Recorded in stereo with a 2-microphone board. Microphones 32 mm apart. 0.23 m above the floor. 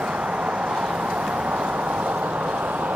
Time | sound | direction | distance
0.0 | a vehicle | 50° right (ahead or behind) | ?